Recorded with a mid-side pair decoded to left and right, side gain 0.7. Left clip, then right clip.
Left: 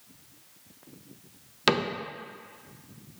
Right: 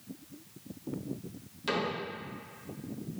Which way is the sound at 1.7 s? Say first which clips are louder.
Left 7 dB; 60° left.